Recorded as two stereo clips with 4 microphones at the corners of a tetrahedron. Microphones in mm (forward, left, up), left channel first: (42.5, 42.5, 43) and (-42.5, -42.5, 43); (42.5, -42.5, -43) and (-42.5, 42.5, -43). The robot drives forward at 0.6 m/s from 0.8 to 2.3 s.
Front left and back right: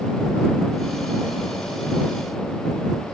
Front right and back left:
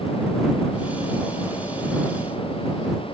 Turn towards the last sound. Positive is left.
No sound to turn to.